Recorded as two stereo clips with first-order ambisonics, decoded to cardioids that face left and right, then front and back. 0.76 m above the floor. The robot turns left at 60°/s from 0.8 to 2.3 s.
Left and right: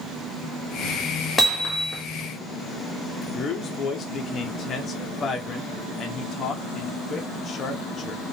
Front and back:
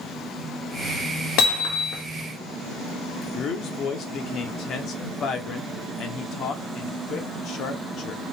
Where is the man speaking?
35° left, 0.7 m.